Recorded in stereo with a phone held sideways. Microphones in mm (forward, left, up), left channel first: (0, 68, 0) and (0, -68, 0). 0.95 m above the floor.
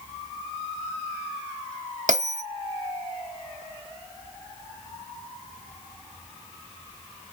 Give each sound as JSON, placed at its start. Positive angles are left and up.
{"t": 2.1, "sound": "a bell", "side_deg": -70, "distance_m": 0.8}